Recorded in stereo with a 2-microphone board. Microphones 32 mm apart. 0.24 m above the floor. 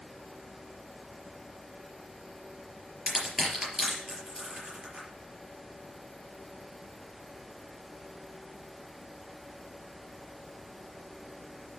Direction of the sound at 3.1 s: 15° right (ahead or behind).